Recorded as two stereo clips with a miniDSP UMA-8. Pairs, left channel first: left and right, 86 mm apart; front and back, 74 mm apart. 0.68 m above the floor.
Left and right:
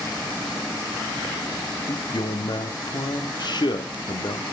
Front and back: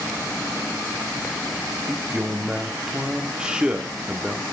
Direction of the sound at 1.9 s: 105° left.